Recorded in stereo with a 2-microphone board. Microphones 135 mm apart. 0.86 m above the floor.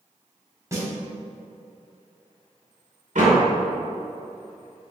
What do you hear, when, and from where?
0.7 s a snare drum: 25° right (ahead or behind), 2.5 m
3.1 s a door slam: 65° right (ahead or behind), 2 m